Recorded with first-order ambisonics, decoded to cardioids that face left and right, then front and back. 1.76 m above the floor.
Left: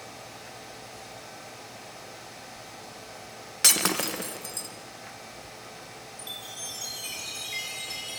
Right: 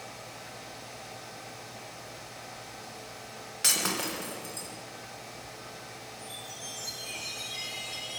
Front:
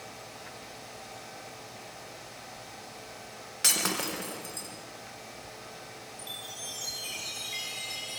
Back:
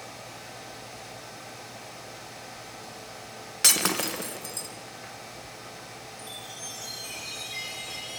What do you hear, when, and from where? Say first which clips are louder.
3.6 s breaking glass: left 4 dB, back 4 dB; 125° left, 0.9 m
6.2 s a chime: left 5 dB, front 1 dB; 75° left, 3.5 m